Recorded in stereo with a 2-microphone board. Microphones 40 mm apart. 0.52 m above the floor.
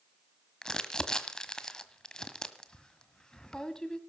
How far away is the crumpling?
About 1.4 m.